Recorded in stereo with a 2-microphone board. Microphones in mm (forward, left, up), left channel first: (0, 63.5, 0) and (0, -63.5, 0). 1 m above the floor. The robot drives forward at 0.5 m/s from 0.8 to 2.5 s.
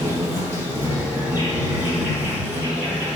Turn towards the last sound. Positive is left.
turn(degrees=-15)  # may be behind; listen again after turning